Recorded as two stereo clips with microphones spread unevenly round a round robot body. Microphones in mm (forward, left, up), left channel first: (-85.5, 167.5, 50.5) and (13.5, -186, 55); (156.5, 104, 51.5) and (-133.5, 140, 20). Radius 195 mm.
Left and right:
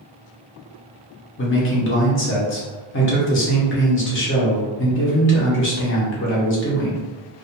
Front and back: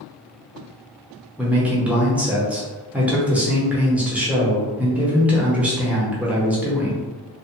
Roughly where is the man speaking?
Left.